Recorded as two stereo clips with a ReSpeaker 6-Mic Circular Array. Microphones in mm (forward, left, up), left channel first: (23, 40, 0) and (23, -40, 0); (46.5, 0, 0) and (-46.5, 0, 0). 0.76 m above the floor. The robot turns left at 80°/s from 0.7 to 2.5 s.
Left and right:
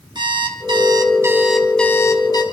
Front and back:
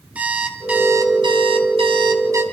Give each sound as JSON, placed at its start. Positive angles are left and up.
{"t": 0.1, "sound": "an alarm clock", "azimuth_deg": -105, "distance_m": 2.5}